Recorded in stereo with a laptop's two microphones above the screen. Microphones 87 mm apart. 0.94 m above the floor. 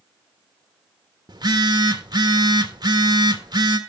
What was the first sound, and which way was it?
A phone buzzing, 50° right (ahead or behind).